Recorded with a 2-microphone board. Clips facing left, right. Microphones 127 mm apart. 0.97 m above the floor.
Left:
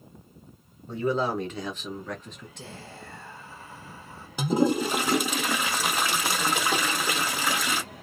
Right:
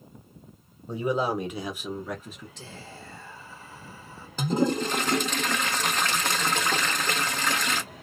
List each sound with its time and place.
0.9 s a man speaking: 15° right (ahead or behind), 1.0 m; by 2.5 s 5° right (ahead or behind), 0.9 m
2.6 s whispering: 55° left (ahead or behind), 1.5 m
4.4 s a toilet flushing: 10° left (ahead or behind), 0.6 m